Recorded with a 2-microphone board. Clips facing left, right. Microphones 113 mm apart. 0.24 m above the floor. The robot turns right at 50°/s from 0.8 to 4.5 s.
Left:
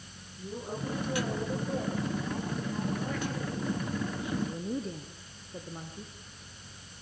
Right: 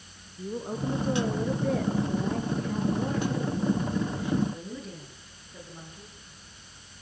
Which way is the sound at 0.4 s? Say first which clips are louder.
Right 5 dB; 150° right.